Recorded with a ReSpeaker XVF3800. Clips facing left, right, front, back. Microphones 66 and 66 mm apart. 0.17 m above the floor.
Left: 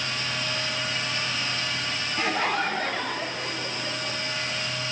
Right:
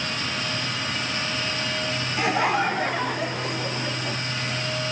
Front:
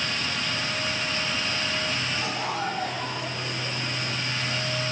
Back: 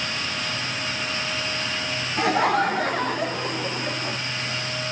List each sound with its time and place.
2.2 s laughter: 170° right, 2.5 m; by 4.2 s 160° right, 1.5 m